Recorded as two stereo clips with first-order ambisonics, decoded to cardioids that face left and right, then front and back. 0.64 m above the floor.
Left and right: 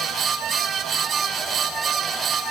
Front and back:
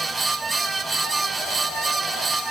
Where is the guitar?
No guitar in this recording.